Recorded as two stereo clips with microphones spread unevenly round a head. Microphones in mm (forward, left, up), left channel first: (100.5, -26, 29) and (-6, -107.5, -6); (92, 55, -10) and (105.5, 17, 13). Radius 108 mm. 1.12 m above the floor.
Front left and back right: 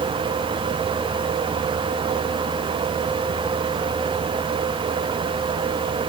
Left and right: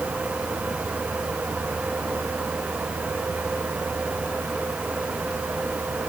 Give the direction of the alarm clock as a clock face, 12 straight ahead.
No alarm clock in this recording.